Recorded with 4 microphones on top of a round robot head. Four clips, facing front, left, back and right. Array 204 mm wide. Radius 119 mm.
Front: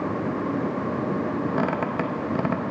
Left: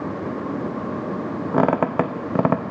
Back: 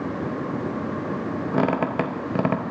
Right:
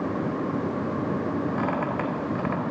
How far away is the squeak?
About 0.7 m.